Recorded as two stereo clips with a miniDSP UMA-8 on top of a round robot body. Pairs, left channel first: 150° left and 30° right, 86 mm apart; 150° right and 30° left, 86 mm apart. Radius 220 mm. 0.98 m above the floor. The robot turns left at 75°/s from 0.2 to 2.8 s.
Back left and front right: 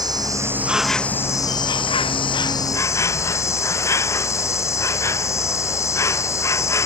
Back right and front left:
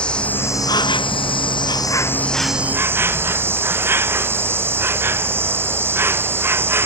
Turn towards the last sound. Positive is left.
turn(degrees=95)